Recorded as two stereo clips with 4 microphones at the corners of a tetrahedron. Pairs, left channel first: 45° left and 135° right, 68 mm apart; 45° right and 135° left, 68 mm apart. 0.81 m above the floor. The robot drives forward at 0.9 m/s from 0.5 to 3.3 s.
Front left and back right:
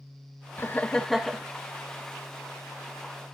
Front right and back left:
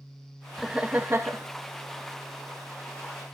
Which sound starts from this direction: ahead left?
Laughter, at 0.6 s.